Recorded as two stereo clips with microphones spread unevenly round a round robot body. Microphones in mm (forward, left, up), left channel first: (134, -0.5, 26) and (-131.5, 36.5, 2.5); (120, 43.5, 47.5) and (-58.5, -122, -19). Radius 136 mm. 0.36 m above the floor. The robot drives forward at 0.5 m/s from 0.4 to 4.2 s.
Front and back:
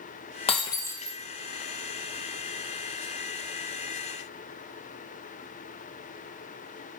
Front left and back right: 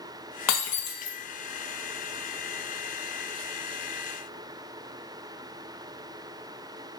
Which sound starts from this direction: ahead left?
Breaking glass, at 0.5 s.